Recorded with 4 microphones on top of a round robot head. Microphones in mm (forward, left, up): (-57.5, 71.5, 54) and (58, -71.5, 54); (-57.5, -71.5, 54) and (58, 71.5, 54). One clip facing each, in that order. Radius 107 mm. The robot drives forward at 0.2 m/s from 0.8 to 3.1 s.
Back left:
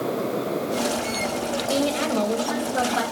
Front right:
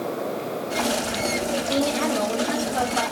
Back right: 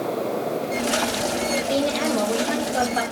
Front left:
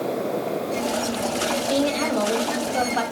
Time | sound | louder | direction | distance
1.7 | a woman speaking | back left 1 dB, front left 1 dB | 145° left | 1.0 m